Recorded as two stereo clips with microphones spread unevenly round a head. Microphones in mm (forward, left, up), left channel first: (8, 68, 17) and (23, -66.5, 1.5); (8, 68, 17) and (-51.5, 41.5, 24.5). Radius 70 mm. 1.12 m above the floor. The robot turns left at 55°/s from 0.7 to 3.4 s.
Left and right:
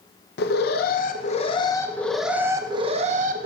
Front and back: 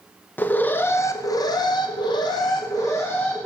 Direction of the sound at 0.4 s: 85° left.